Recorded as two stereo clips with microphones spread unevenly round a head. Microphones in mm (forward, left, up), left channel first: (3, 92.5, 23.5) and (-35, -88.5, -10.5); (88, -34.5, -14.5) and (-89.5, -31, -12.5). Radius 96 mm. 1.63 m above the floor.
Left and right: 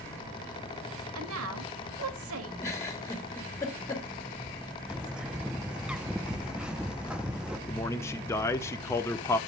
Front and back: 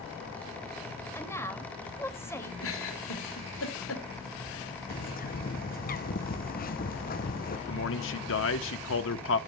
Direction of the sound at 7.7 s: 5° left.